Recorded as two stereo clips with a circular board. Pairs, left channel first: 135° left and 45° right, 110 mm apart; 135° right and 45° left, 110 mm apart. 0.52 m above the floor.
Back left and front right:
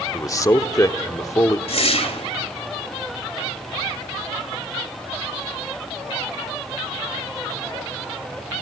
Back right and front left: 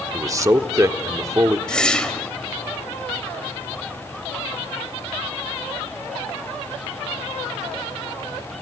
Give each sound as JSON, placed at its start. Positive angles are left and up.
{"t": 0.1, "sound": "a man speaking", "azimuth_deg": 90, "distance_m": 1.0}
{"t": 1.7, "sound": "a whoosh", "azimuth_deg": 145, "distance_m": 2.5}